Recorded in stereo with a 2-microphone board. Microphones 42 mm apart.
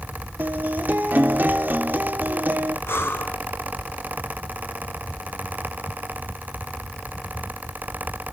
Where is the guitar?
50° right (ahead or behind), 2 m.